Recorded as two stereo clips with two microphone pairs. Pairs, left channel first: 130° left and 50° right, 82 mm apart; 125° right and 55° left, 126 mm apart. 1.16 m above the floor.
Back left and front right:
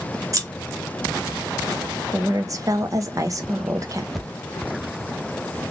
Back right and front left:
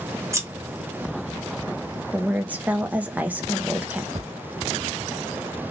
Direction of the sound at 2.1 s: 20° right.